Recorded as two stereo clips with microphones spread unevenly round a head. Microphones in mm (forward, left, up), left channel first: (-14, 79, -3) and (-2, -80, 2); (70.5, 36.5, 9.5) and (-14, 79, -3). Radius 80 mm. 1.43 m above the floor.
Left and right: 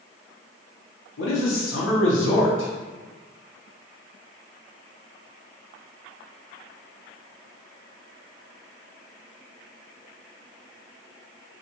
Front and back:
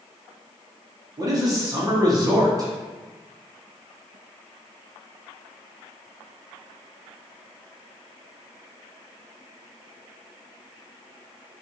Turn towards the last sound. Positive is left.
turn(degrees=100)